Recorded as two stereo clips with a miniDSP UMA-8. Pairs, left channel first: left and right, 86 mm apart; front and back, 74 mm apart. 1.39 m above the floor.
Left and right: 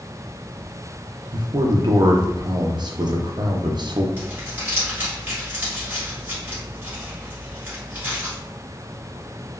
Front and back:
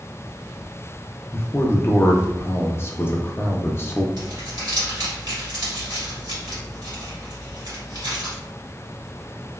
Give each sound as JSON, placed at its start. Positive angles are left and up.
{"t": 1.3, "sound": "a man speaking", "azimuth_deg": -60, "distance_m": 0.6}
{"t": 4.2, "sound": "crumpling", "azimuth_deg": -160, "distance_m": 1.2}